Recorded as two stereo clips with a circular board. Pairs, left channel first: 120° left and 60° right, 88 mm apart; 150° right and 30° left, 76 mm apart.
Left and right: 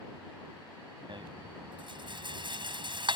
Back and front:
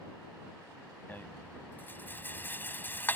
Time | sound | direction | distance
1.1 | a rattle | 85° right | ?